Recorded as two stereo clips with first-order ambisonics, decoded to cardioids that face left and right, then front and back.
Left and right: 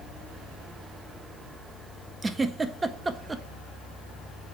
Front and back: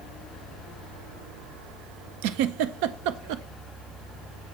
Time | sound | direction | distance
2.2 | a giggle | 170° right | 0.6 m